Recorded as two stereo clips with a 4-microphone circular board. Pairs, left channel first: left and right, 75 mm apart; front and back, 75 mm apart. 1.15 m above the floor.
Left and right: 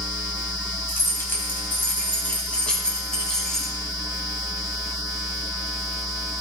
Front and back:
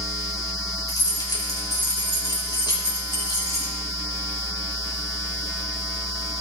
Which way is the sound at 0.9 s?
35° left.